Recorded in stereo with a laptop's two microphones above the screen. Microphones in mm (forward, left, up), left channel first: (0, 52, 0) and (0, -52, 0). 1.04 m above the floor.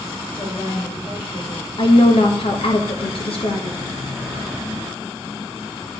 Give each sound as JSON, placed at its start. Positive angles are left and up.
{"t": 0.3, "sound": "a woman speaking", "side_deg": 75, "distance_m": 3.0}
{"t": 1.8, "sound": "a woman speaking", "side_deg": 60, "distance_m": 1.5}